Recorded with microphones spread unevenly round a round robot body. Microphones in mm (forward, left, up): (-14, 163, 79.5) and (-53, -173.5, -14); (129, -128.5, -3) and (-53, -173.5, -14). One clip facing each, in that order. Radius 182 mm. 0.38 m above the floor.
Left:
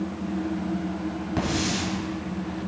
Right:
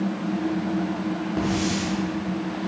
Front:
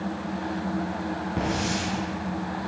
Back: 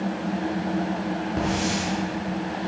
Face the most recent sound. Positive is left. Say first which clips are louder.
# right 1 dB, back 1 dB
turn(degrees=70)